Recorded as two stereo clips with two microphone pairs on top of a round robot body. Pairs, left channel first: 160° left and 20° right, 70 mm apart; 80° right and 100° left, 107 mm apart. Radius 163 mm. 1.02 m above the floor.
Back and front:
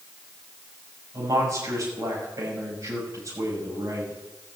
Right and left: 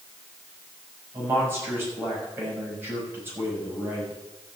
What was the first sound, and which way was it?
A man speaking, 30° left.